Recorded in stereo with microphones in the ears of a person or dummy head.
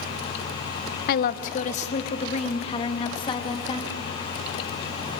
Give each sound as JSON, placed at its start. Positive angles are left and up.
{"t": 1.1, "sound": "a woman speaking", "side_deg": 50, "distance_m": 0.7}